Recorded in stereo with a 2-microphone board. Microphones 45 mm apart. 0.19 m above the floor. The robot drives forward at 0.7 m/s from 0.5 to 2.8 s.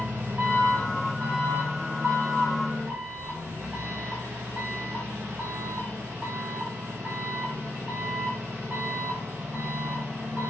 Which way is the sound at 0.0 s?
35° right (ahead or behind).